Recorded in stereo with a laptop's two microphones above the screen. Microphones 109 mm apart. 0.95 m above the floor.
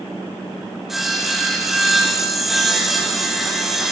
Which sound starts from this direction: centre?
Sawing, at 0.9 s.